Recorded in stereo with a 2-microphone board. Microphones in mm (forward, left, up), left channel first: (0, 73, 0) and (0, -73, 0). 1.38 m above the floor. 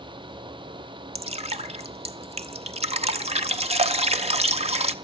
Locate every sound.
1.1 s dripping: 40° right (ahead or behind), 0.7 m